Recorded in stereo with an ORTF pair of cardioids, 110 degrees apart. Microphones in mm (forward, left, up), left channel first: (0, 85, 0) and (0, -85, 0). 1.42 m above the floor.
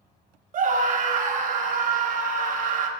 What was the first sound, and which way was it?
A scream, 50° right.